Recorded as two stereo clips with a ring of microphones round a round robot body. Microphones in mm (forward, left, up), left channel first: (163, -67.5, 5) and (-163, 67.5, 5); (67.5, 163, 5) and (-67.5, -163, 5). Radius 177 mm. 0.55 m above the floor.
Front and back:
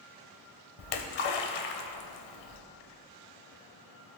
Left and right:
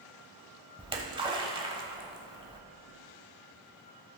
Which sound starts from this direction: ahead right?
A splash, at 0.8 s.